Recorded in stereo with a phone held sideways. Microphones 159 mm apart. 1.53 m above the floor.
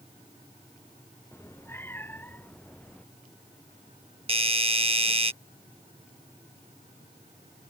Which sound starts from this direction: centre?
A cat meowing, at 1.3 s.